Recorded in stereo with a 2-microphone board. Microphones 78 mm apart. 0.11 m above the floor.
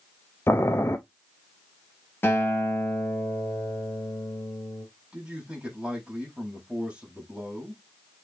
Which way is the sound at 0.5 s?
30° left (ahead or behind).